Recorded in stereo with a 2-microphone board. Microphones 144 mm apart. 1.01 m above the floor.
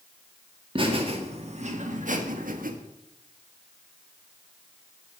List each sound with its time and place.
0.8 s laughter: 35° right (ahead or behind), 1.8 m; by 2.7 s 75° right (ahead or behind), 1.5 m